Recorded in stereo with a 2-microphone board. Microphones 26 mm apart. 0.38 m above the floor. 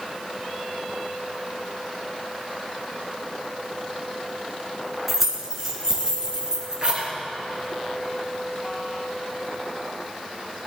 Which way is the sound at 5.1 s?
10° right (ahead or behind).